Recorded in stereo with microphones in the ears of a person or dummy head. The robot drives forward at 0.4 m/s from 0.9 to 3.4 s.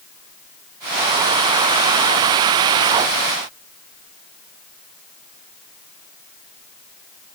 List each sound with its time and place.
Only background noise.